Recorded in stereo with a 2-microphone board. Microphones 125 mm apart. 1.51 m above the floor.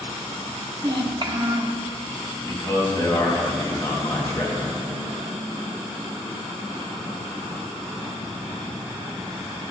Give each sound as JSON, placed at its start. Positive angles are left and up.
{"t": 0.8, "sound": "a child speaking", "side_deg": -40, "distance_m": 1.2}
{"t": 2.4, "sound": "a man speaking", "side_deg": 25, "distance_m": 3.0}